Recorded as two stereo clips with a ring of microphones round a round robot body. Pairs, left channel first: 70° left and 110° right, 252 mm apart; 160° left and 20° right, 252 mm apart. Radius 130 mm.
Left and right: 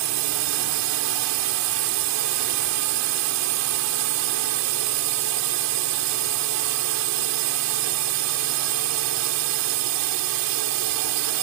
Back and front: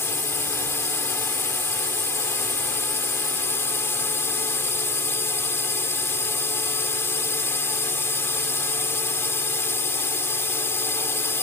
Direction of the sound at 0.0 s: 120° right.